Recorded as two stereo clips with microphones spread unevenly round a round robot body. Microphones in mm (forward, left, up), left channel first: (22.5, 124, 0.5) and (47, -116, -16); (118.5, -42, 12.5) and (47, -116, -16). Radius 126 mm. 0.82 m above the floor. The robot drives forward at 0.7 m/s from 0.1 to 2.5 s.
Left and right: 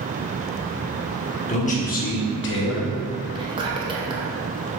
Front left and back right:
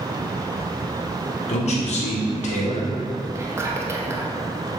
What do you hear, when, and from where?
1.5 s a man speaking: 30° left, 1.6 m; by 2.9 s 55° left, 1.0 m
3.4 s whispering: 140° right, 0.8 m